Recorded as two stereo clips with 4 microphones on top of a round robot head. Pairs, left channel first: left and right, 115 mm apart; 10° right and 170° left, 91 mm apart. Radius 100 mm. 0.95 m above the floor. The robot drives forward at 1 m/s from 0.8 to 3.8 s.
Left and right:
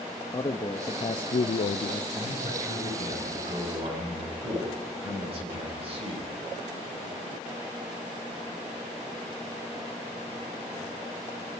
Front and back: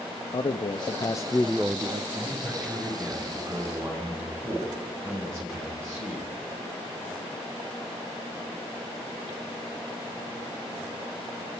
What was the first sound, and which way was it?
A man speaking, 30° left.